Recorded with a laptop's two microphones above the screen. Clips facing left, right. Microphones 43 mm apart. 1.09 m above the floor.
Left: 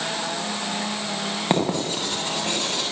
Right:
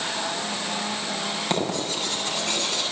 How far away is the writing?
About 9 m.